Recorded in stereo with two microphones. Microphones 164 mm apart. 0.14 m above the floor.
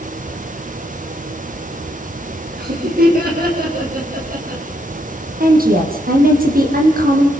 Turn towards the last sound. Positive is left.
turn(degrees=-65)  # may be behind; listen again after turning